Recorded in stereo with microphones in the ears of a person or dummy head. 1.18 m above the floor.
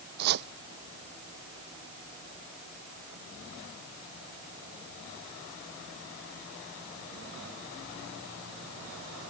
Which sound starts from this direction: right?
Chopping, at 0.2 s.